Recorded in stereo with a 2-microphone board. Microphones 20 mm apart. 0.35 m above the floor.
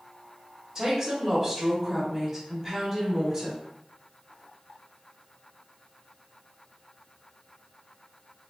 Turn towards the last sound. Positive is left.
turn(degrees=-30)  # may be behind; listen again after turning